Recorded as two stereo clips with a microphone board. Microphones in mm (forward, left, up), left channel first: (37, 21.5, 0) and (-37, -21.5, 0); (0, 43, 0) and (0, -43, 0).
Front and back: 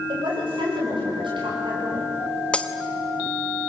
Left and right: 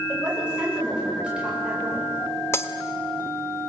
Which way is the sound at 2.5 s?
90° left.